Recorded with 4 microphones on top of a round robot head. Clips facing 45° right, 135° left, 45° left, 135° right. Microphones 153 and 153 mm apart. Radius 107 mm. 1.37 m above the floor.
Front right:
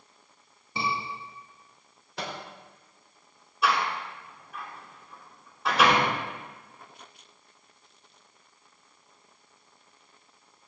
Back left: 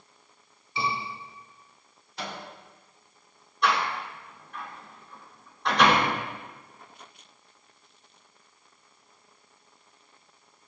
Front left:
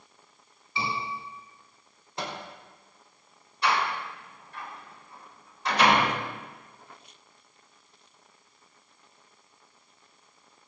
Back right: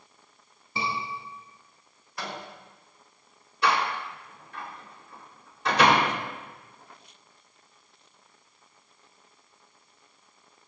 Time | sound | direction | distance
0.8 | a scream | 90° right | 8 m
2.2 | a microwave | 20° right | 4 m
3.6 | a door slam | 130° right | 3.5 m